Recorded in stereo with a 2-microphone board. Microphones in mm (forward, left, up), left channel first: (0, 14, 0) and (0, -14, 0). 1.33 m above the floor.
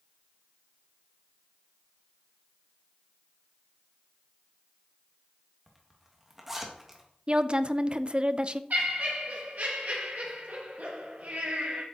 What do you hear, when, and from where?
5.7 s a zipper: 15° right (ahead or behind), 1.9 m
7.3 s a woman speaking: 40° right (ahead or behind), 0.5 m
8.7 s laughter: 85° right, 1.7 m